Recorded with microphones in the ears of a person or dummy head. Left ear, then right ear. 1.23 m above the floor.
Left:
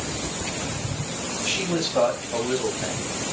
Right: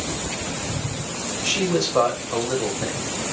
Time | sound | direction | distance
1.4 | a man speaking | 45° right (ahead or behind) | 4 m